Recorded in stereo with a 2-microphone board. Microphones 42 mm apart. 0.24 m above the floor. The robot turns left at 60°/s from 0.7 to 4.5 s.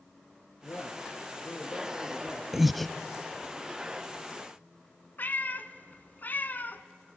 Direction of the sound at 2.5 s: 10° right (ahead or behind).